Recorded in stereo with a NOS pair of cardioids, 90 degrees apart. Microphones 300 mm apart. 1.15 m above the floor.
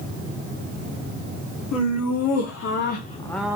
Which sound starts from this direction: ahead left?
Laughter, at 1.7 s.